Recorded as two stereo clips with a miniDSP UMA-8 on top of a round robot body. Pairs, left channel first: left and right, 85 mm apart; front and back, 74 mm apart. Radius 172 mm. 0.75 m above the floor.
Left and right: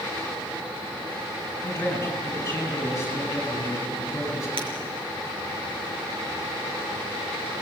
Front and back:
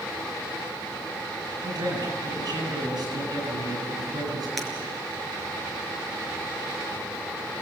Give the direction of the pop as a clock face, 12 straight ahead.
No pop in this recording.